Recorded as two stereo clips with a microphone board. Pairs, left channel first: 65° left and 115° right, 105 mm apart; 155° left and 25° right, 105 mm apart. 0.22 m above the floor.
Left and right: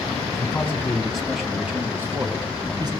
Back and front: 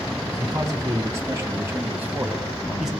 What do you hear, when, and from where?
0.3 s a man speaking: 10° left, 1.5 m; by 2.9 s 105° right, 1.5 m